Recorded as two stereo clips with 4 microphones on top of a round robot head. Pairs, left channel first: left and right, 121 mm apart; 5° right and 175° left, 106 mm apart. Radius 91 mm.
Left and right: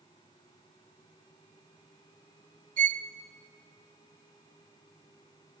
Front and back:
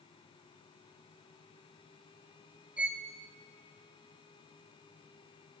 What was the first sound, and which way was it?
A violin, 100° right.